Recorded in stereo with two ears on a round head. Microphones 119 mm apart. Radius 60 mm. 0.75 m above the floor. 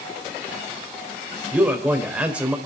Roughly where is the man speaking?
Centre.